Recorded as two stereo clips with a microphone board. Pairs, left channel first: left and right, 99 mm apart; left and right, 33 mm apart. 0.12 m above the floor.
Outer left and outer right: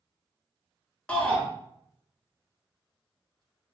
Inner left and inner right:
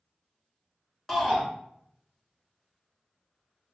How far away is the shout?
About 1.1 m.